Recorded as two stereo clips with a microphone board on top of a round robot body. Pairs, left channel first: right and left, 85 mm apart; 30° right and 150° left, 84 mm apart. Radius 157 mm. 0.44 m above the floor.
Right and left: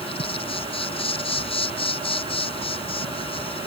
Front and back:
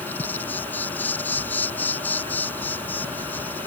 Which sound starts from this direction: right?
An insect, at 0.0 s.